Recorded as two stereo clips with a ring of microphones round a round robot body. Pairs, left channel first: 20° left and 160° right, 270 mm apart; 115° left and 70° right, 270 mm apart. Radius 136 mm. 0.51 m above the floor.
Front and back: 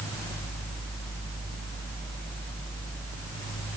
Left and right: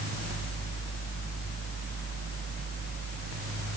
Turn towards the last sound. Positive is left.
No sound to turn to.